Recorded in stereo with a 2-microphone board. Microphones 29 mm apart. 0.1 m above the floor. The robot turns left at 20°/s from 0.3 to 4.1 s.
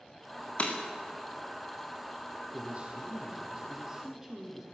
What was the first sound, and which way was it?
Breaking glass, 45° left (ahead or behind).